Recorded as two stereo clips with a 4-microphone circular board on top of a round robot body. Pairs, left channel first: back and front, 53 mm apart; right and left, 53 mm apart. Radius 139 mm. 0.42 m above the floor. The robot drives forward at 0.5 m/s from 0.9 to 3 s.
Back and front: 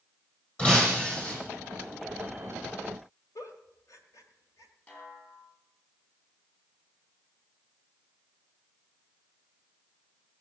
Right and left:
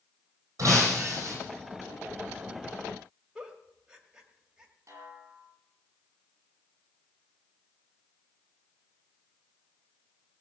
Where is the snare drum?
120° left, 5 m.